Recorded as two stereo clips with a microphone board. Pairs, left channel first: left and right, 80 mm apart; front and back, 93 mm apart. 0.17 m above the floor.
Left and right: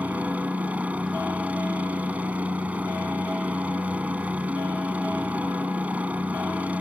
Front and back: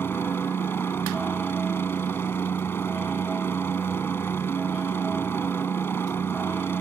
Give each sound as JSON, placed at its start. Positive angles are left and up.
{"t": 0.0, "sound": "a helicopter", "azimuth_deg": -35}